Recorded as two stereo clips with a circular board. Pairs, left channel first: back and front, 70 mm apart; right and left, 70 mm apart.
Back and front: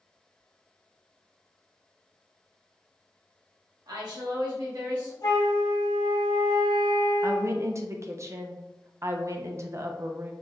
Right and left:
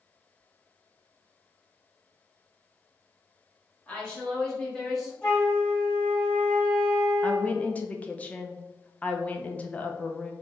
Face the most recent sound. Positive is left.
turn(degrees=-30)